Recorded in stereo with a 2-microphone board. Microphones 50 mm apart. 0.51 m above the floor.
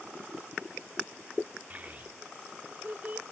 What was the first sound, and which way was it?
A child speaking, 35° right (ahead or behind).